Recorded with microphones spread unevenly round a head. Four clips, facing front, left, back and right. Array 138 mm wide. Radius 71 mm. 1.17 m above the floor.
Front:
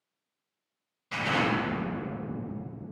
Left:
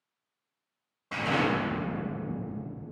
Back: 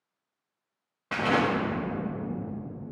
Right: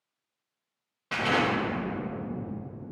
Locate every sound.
1.1 s an explosion: 170° right, 1.2 m